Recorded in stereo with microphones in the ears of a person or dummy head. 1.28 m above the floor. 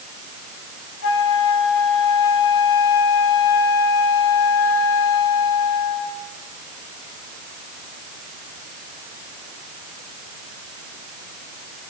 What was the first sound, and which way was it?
A flute, 70° left (ahead or behind).